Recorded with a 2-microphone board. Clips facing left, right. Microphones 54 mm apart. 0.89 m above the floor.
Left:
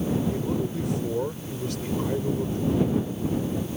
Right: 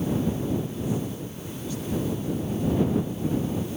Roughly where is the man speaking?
Left.